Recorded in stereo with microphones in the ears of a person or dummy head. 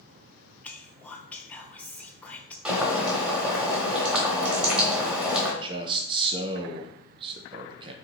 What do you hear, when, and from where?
0.6 s whispering: 10° left (ahead or behind), 0.6 m
2.6 s boiling: 10° right (ahead or behind), 1.0 m
5.6 s a man speaking: 25° right (ahead or behind), 0.6 m